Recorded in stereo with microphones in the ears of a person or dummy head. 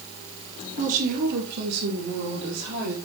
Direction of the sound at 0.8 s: 40° right (ahead or behind).